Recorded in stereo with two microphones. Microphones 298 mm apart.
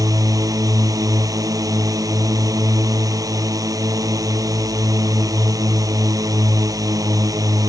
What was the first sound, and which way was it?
A drone, 10° right (ahead or behind).